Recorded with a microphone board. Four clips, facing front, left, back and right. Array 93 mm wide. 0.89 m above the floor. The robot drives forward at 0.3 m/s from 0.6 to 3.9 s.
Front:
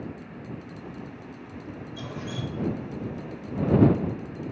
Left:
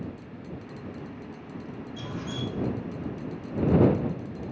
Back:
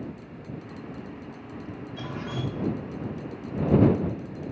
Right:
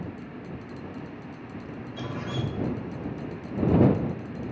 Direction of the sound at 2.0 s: 135° right.